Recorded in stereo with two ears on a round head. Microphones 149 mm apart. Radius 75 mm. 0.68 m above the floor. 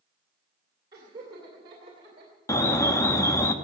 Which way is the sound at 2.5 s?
20° left (ahead or behind).